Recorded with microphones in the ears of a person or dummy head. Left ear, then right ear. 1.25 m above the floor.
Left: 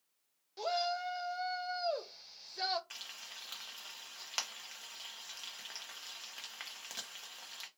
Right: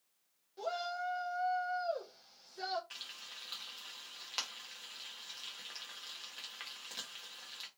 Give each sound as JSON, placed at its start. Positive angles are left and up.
{"t": 0.6, "sound": "a shout", "side_deg": 45, "distance_m": 0.6}
{"t": 2.9, "sound": "frying", "side_deg": 15, "distance_m": 0.6}